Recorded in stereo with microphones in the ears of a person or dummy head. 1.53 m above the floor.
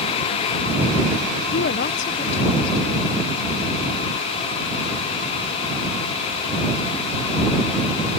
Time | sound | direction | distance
1.5 | a woman speaking | 55° left (ahead or behind) | ?